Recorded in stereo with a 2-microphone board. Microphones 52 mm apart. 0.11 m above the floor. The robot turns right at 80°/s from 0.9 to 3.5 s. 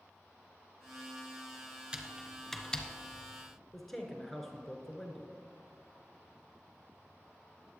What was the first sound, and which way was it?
Typing on a keyboard, 15° right (ahead or behind).